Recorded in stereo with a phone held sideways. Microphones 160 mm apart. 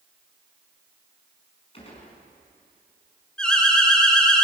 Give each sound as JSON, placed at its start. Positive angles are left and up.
{"t": 1.7, "sound": "a gunshot", "side_deg": 40, "distance_m": 5.5}
{"t": 3.4, "sound": "an alarm", "side_deg": 5, "distance_m": 3.0}